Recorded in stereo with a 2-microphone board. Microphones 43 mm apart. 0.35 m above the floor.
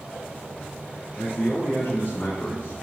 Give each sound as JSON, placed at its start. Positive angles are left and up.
{"t": 1.2, "sound": "a man speaking", "side_deg": 50, "distance_m": 3.0}